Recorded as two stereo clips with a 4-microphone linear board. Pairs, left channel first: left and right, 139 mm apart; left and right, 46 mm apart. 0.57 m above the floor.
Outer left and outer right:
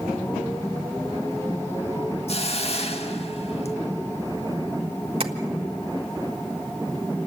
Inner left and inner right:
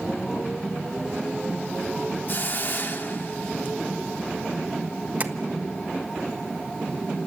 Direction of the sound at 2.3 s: 45° left (ahead or behind).